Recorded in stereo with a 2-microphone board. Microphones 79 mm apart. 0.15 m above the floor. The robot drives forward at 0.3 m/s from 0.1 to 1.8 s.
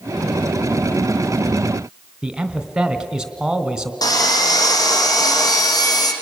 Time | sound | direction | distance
2.2 | a man speaking | 10° right (ahead or behind) | 1.2 m
4.0 | sawing | 55° left (ahead or behind) | 3 m